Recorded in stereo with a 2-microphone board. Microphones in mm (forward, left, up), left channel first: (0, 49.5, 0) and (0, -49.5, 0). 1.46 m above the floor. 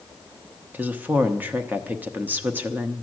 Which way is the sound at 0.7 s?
20° right (ahead or behind).